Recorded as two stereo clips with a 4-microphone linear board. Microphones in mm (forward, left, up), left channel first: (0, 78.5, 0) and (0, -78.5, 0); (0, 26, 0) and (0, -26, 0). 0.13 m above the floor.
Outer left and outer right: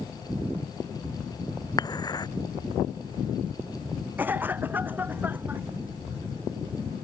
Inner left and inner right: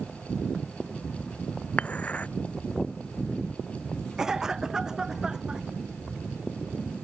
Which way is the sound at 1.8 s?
25° left (ahead or behind).